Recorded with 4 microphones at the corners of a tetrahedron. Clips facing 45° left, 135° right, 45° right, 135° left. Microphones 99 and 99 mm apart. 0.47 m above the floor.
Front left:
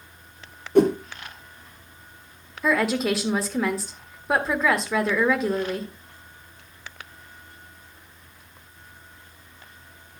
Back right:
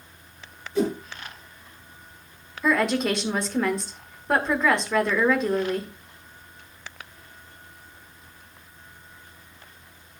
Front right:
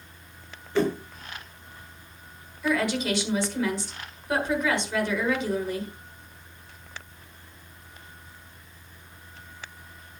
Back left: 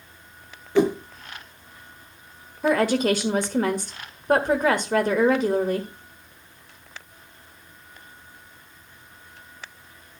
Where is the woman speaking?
130° left, 1.4 m.